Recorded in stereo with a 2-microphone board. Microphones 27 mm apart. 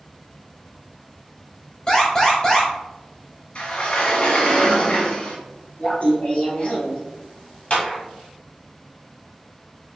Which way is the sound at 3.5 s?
50° left (ahead or behind).